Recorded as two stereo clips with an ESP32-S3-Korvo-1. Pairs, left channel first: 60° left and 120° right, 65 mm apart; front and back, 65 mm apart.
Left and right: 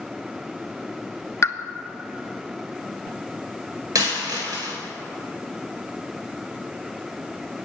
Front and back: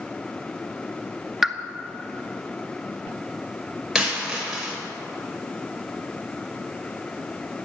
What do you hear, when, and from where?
1.4 s a pop: 95° left, 0.6 m
4.0 s a dropped coin: 90° right, 3.5 m